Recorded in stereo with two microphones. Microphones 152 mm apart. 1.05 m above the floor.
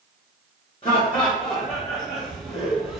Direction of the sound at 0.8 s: 30° left (ahead or behind).